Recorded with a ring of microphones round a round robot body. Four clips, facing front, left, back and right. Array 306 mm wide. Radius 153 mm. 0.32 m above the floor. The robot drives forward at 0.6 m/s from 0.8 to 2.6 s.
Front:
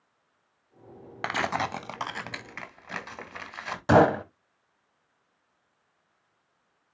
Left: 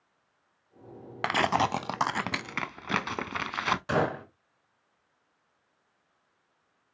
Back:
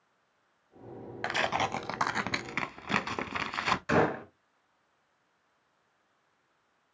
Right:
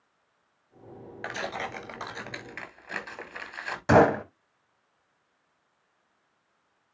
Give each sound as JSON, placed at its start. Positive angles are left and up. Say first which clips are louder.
{"t": 1.2, "sound": "tearing paper", "louder": "left 9 dB, front 2 dB", "azimuth_deg": 65, "distance_m": 0.8}
{"t": 3.9, "sound": "a gunshot", "louder": "right 12 dB, front 9 dB", "azimuth_deg": -35, "distance_m": 1.5}